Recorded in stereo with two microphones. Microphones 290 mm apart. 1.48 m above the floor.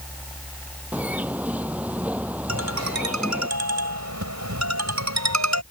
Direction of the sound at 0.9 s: 5° right (ahead or behind).